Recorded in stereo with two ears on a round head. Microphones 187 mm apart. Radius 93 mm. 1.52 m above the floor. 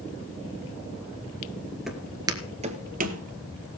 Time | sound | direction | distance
1.9 | footsteps | centre (ahead or behind) | 1.7 m